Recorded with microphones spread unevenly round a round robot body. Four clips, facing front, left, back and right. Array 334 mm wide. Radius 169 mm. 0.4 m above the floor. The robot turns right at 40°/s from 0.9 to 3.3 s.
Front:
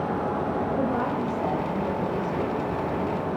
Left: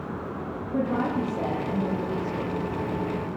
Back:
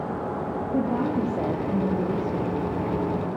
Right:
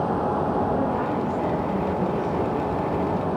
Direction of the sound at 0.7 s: 155° left.